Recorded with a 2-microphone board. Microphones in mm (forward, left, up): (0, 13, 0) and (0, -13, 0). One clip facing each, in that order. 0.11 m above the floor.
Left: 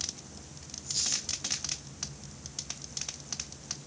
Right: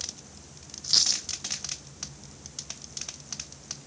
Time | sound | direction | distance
0.8 | a dropped coin | 75° right (ahead or behind) | 1.4 m